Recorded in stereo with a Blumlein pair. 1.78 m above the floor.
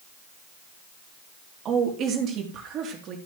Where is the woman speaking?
30° right, 3.5 m.